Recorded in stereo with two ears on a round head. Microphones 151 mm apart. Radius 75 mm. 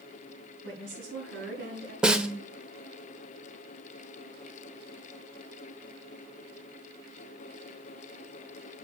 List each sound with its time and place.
0.6 s a woman speaking: 80° right, 6 m; by 1.9 s 70° right (ahead or behind), 6 m
2.0 s a snare drum: 5° right (ahead or behind), 0.8 m